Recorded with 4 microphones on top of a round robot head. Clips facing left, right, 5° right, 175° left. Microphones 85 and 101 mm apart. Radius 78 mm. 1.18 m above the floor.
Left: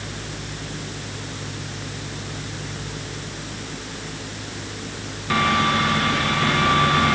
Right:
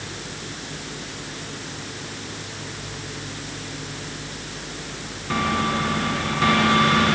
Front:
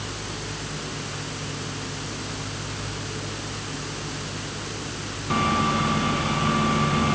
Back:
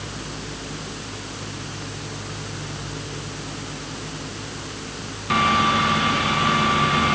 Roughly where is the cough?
No cough in this recording.